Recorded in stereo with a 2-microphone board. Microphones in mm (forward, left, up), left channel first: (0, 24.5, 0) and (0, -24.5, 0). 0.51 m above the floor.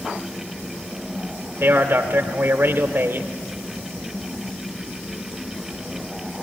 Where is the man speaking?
50° right (ahead or behind), 1.5 m.